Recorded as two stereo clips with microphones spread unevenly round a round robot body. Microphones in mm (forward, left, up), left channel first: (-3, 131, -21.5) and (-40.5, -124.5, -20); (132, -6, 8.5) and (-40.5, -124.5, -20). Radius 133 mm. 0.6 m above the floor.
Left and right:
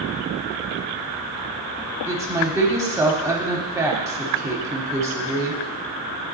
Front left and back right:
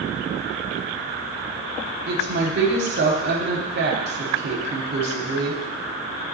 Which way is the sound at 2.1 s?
175° right.